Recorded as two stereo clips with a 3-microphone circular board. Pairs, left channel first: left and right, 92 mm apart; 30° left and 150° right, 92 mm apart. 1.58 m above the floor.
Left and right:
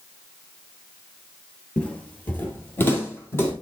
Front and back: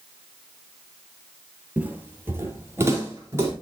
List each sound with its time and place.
1.8 s footsteps: 155° left, 1.7 m; by 3.5 s 150° left, 3.5 m